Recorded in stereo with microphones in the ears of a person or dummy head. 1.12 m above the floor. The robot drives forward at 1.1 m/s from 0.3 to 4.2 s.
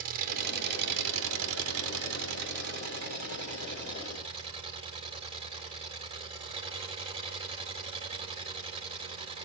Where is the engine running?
50° right (ahead or behind), 2.5 m; by 9.4 s 35° right (ahead or behind), 3.5 m.